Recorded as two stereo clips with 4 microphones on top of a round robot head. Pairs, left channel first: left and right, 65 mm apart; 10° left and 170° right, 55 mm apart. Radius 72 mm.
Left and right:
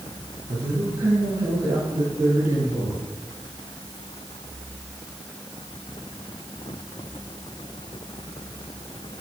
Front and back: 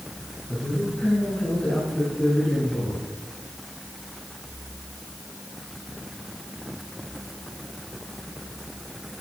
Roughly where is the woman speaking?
Ahead right.